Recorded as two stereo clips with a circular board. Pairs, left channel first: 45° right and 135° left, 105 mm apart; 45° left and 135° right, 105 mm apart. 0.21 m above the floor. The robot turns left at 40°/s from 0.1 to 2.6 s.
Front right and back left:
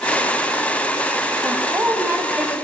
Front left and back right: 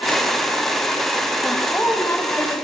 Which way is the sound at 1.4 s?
105° left.